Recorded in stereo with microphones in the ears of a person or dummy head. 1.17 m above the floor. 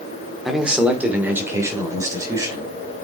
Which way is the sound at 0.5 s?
Centre (ahead or behind).